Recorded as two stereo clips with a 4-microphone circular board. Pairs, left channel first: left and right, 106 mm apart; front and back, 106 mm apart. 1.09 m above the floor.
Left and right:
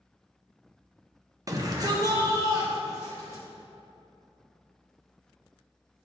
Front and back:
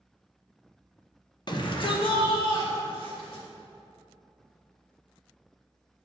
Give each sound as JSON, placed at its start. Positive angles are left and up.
{"t": 1.5, "sound": "a shout", "azimuth_deg": -35, "distance_m": 1.1}